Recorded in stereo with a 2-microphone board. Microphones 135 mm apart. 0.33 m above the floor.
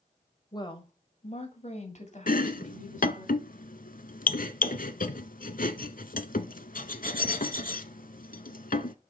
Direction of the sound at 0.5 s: 30° left (ahead or behind).